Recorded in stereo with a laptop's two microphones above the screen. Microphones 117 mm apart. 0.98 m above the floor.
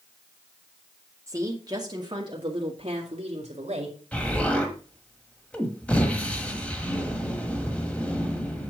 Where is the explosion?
10° left (ahead or behind), 1.5 m.